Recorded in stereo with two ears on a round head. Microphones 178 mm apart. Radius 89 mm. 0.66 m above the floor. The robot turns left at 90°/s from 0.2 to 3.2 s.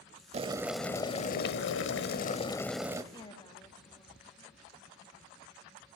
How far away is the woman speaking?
About 1.2 m.